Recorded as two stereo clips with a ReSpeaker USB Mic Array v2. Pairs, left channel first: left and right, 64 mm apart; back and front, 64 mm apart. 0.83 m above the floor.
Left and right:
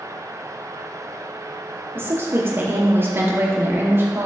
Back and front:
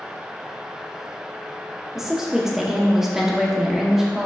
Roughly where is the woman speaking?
Right.